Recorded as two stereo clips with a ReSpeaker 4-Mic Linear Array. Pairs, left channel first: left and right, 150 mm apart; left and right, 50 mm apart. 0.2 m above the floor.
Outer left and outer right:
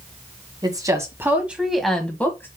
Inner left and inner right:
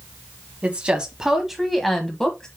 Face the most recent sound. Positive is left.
turn(degrees=15)  # may be behind; listen again after turning